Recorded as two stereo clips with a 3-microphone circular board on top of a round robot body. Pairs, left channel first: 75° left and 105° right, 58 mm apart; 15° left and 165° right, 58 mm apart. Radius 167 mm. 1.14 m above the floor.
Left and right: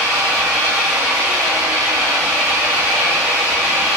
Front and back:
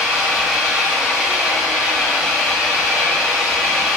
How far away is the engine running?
About 1.3 m.